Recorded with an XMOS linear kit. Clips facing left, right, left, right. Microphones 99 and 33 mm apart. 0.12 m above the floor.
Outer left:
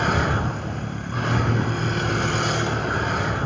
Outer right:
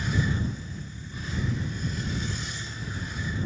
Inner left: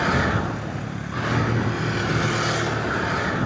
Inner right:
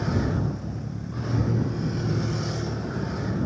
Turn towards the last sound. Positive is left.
turn(degrees=65)  # may be behind; listen again after turning